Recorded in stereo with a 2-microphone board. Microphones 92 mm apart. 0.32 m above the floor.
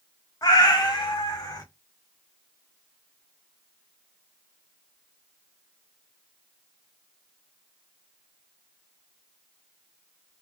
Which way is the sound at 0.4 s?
45° left (ahead or behind).